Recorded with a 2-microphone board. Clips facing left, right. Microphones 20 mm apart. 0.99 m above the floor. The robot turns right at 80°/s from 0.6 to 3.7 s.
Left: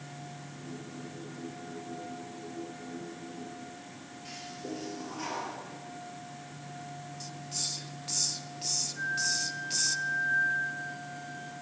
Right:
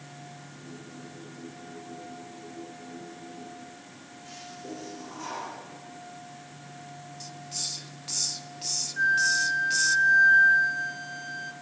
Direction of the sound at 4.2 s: 85° left.